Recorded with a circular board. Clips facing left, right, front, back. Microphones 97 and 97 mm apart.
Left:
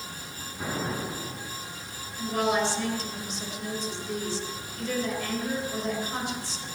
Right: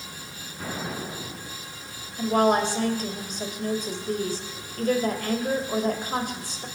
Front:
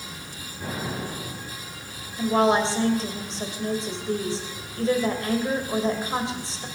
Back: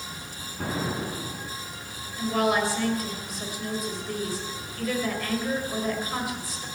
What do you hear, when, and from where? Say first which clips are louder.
0.6 s an explosion: left 1 dB, back 2 dB; 165° left, 5 m
2.2 s a woman speaking: right 5 dB, front 4 dB; 60° right, 2.5 m